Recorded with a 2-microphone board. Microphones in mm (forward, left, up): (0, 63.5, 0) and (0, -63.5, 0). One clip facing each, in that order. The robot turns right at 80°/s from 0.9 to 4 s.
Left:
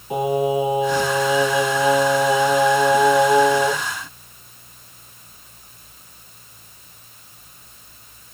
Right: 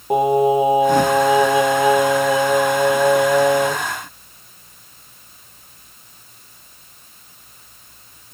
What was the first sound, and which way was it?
Singing, 95° right.